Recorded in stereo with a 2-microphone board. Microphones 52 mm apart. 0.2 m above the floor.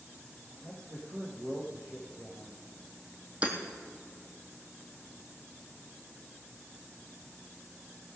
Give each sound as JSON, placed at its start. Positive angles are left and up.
{"t": 0.6, "sound": "a man speaking", "side_deg": -75, "distance_m": 6.0}
{"t": 3.4, "sound": "hammering", "side_deg": -25, "distance_m": 2.5}